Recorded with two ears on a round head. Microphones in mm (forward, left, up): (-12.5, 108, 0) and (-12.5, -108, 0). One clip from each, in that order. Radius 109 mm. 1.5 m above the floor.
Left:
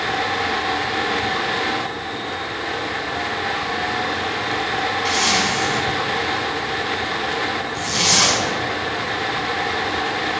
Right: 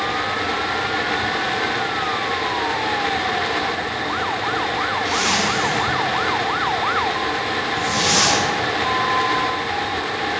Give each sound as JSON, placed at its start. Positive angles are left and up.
{"t": 5.0, "sound": "a zipper", "side_deg": 30, "distance_m": 5.0}